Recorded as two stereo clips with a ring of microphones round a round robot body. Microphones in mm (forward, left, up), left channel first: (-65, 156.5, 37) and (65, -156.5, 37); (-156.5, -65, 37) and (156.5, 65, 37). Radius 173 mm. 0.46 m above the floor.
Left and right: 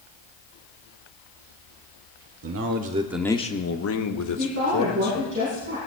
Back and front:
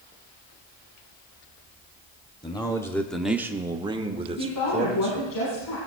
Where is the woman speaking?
125° right, 5 m.